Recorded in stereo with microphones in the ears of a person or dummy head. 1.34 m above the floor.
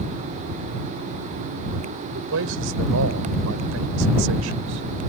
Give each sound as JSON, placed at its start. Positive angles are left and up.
{"t": 2.0, "sound": "a man speaking", "side_deg": -70}